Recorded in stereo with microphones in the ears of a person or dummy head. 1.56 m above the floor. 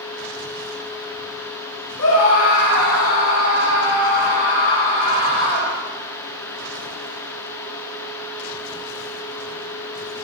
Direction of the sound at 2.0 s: 75° left (ahead or behind).